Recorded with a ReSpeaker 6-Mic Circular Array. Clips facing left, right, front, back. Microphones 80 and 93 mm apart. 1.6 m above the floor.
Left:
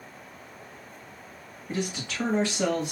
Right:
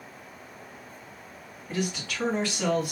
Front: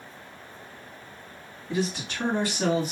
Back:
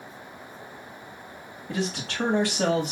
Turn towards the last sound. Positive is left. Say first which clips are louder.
# right 1 dB, front 1 dB
turn(degrees=160)